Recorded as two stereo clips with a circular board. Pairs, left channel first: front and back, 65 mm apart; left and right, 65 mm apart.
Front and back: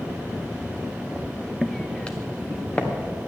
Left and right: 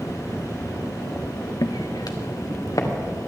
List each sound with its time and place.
1.6 s footsteps: 90° left, 0.6 m; by 2.9 s 65° left, 2 m